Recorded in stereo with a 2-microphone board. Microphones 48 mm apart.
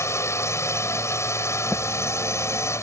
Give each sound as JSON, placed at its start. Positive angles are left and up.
{"t": 0.0, "sound": "a drone", "side_deg": 80}